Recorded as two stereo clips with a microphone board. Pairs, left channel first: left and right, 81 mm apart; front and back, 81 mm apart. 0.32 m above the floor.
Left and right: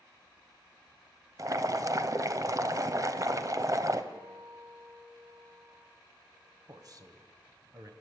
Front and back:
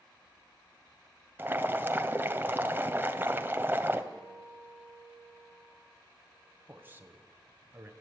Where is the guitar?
95° right, 9 m.